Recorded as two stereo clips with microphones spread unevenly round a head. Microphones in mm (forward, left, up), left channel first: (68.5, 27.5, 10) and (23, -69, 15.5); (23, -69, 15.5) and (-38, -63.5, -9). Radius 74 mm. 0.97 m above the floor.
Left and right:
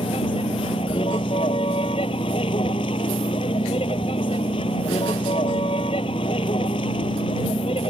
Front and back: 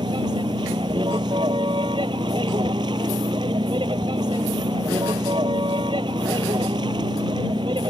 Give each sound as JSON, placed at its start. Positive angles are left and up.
{"t": 0.0, "sound": "a vehicle", "azimuth_deg": 125}